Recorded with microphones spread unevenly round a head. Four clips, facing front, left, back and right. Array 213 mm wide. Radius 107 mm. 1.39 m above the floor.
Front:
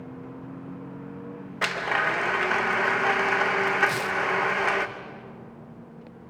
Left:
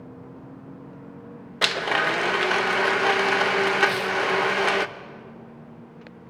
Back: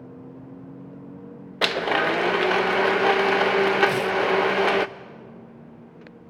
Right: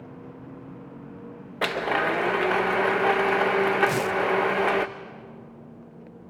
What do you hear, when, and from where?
1.6 s a blender: 165° right, 0.6 m
3.9 s tearing paper: 120° right, 0.6 m